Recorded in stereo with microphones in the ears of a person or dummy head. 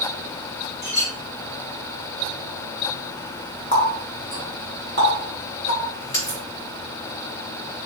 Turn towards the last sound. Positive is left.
turn(degrees=35)  # may be behind; listen again after turning